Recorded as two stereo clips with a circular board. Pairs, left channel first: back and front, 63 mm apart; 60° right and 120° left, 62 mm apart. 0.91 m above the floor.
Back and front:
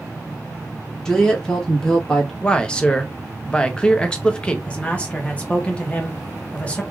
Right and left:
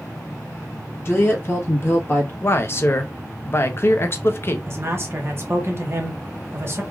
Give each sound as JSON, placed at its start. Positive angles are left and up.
{"t": 1.1, "sound": "a woman speaking", "azimuth_deg": -100, "distance_m": 1.1}
{"t": 2.4, "sound": "a man speaking", "azimuth_deg": -105, "distance_m": 0.6}
{"t": 4.7, "sound": "a man speaking", "azimuth_deg": 125, "distance_m": 0.9}